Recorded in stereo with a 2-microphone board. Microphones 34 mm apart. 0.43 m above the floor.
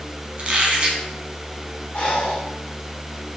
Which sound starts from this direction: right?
A squeak, at 0.4 s.